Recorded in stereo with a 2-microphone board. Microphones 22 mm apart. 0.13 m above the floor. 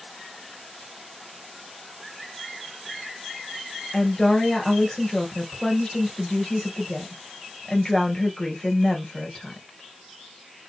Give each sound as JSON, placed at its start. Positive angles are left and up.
{"t": 3.9, "sound": "a woman speaking", "side_deg": 25, "distance_m": 3.0}